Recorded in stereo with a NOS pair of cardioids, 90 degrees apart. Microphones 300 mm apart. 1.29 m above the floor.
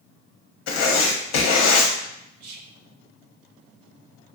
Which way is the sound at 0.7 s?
65° left.